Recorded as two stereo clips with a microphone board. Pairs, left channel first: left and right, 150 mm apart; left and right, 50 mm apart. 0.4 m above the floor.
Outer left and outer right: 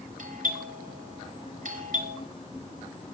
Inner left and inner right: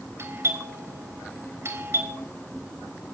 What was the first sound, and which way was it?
A doorbell, 65° right (ahead or behind).